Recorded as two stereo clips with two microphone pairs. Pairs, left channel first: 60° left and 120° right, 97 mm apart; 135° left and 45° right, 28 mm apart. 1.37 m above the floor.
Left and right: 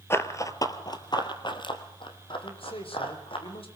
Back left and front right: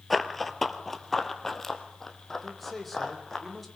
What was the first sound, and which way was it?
Running footsteps, 45° left.